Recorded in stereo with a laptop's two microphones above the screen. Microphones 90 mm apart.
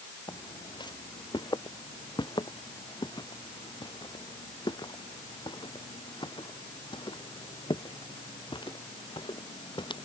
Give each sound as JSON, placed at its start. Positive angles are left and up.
{"t": 0.3, "sound": "footsteps", "side_deg": 55}